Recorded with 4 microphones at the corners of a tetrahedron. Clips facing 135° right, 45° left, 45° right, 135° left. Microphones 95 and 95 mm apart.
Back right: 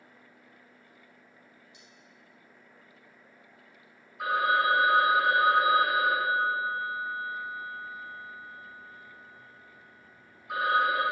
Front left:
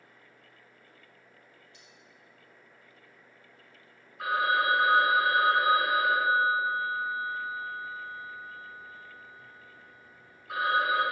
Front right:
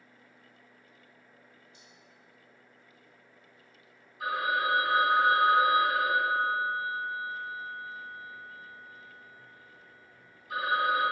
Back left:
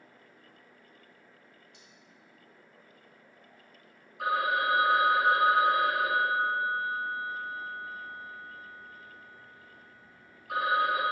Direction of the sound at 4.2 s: 140° left.